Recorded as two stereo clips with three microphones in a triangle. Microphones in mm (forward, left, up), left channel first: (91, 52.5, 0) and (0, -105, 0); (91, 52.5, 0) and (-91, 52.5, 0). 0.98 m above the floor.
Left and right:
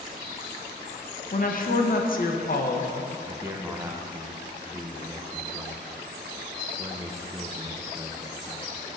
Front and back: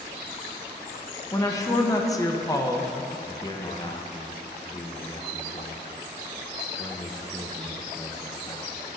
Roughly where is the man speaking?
Ahead right.